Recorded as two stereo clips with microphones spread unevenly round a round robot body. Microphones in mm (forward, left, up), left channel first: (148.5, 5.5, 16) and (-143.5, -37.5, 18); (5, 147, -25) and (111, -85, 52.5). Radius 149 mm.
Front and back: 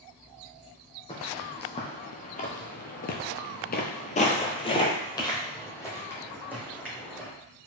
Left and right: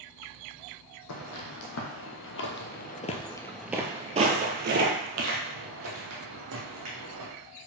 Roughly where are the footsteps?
Left.